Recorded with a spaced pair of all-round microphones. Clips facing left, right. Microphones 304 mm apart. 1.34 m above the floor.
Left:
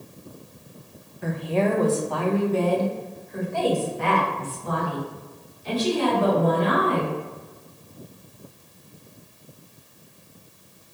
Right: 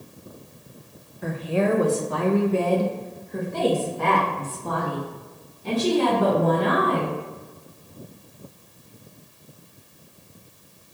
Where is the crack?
No crack in this recording.